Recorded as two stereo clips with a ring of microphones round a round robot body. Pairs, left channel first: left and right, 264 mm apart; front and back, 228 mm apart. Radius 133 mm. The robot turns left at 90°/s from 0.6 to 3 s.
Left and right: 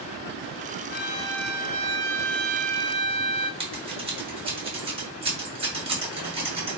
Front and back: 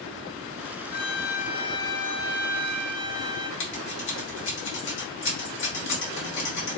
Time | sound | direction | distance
0.9 | a violin | 50° left | 1.0 m
3.6 | scissors | 25° right | 2.0 m